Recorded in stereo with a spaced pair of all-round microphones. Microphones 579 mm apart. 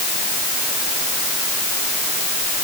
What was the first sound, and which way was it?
Only background noise.